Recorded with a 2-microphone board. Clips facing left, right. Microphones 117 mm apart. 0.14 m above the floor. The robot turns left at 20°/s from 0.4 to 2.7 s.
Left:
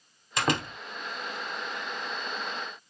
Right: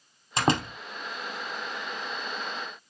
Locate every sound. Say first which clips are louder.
0.4 s a door slam: right 3 dB; 25° right (ahead or behind), 3.5 m; by 0.8 s 20° right (ahead or behind), 3.5 m